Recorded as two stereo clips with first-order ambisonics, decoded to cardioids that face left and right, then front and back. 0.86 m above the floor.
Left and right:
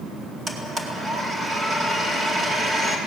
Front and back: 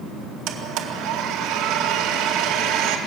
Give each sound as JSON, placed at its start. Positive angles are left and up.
{"t": 0.5, "sound": "a blender", "azimuth_deg": -165, "distance_m": 2.0}